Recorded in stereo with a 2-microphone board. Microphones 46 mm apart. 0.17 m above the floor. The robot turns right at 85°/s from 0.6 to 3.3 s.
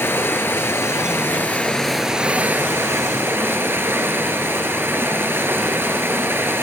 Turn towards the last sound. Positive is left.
turn(degrees=-70)